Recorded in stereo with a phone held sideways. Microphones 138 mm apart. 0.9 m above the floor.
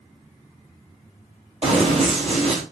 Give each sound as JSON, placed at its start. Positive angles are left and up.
{"t": 1.6, "sound": "running footsteps", "side_deg": -50, "distance_m": 1.4}